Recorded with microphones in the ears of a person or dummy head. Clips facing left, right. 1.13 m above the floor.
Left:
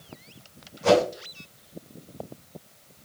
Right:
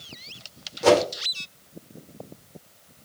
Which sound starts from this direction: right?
A whoosh, at 0.8 s.